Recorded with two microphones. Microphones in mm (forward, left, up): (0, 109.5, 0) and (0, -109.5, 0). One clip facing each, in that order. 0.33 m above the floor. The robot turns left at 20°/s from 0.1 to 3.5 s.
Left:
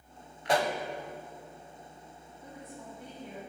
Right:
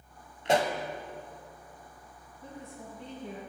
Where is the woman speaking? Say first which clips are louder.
Right 2 dB; 35° right (ahead or behind), 2 m; by 3.4 s 20° right (ahead or behind), 2 m.